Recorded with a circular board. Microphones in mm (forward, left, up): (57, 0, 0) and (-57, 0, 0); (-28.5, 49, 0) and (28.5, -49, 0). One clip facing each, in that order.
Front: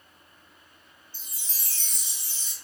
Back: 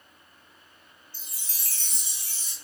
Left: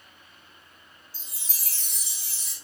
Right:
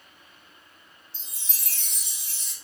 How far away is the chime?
About 0.7 m.